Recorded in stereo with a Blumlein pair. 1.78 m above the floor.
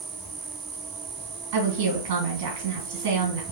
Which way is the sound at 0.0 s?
30° right.